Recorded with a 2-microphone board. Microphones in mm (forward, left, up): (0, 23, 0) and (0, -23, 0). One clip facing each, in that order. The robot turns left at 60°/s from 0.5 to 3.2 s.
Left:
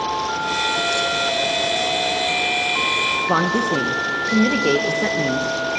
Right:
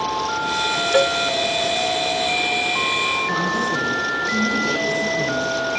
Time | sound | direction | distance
0.9 | a cowbell | 60° right (ahead or behind) | 0.8 m
3.3 | a woman speaking | 70° left (ahead or behind) | 1.6 m